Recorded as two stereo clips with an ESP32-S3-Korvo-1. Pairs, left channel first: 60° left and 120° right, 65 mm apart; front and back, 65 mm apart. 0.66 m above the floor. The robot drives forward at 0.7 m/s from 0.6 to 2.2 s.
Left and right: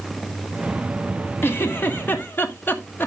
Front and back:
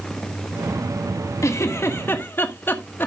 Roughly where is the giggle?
Ahead.